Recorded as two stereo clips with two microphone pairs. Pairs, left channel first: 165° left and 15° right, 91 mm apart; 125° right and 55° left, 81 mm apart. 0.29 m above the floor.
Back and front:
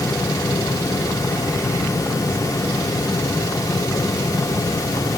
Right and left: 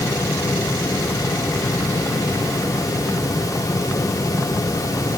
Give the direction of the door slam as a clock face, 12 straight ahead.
I don't hear a door slam.